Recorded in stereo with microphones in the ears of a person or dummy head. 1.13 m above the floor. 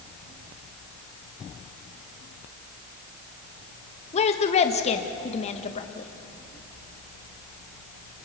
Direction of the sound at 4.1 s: 35° left (ahead or behind).